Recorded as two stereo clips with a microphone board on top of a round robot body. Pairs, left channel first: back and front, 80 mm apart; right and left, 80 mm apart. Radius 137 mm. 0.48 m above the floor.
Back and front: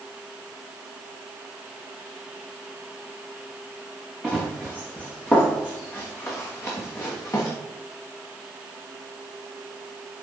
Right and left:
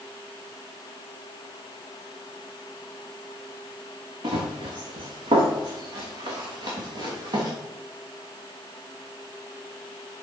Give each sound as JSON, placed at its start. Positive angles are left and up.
{"t": 4.2, "sound": "running footsteps", "azimuth_deg": 95, "distance_m": 3.5}